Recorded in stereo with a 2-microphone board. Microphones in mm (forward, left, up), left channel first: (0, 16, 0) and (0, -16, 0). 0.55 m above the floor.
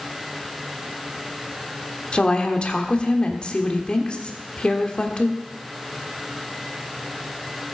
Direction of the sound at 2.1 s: 35° left (ahead or behind).